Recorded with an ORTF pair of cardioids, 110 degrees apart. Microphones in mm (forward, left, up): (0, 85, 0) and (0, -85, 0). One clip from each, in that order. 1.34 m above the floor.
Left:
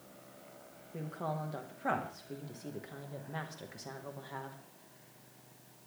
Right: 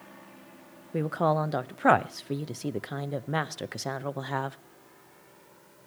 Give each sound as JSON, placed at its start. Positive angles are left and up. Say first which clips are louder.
{"t": 0.9, "sound": "a woman speaking", "louder": "right 13 dB", "azimuth_deg": -65, "distance_m": 0.8}